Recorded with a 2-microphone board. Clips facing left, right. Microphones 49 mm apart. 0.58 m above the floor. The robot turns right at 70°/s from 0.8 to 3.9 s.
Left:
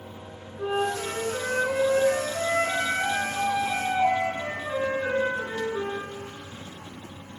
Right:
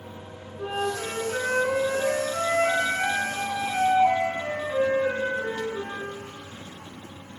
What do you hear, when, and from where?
0.6 s a flute: 170° left, 3.5 m; by 6.1 s 30° left, 3.5 m